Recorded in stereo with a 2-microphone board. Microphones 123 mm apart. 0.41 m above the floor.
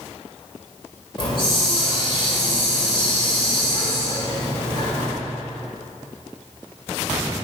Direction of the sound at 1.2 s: 40° left (ahead or behind).